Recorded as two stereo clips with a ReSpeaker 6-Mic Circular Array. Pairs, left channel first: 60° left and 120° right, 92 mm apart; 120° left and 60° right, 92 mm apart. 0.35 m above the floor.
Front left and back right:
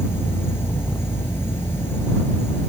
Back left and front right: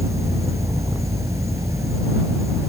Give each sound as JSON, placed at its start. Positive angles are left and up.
{"t": 0.0, "sound": "an insect", "azimuth_deg": -5}